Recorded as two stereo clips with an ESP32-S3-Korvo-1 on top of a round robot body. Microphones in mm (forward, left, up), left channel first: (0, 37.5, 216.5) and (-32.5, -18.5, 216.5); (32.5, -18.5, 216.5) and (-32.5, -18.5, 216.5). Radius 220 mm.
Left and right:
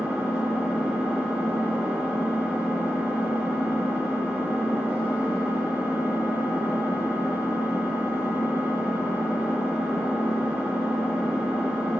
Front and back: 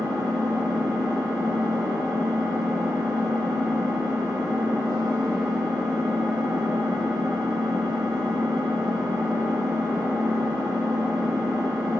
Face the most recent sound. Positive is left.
turn(degrees=180)